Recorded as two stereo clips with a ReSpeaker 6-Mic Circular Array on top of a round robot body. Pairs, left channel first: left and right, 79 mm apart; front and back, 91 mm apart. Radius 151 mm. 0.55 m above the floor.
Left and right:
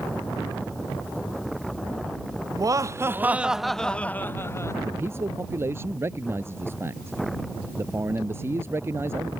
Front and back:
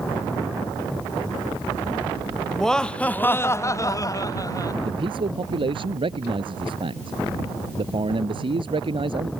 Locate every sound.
2.5 s laughter: 85° right; by 4.8 s 45° left
4.8 s a man speaking: 150° right